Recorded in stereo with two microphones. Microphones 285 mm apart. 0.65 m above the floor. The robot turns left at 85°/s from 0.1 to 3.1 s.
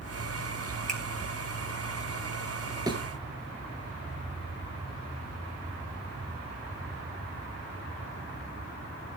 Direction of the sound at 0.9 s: 30° right (ahead or behind).